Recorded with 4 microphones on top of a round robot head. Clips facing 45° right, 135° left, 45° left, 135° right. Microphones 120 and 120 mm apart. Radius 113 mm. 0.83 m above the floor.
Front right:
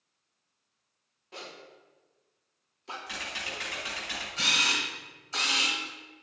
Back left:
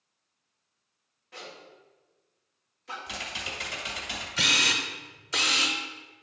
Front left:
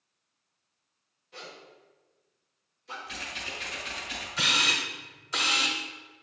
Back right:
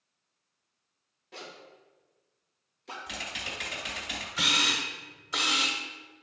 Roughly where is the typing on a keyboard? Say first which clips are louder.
Back left 1 dB, back right 3 dB; behind right.